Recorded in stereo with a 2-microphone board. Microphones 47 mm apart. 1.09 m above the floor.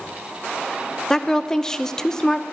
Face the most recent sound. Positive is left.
turn(degrees=10)  # may be behind; listen again after turning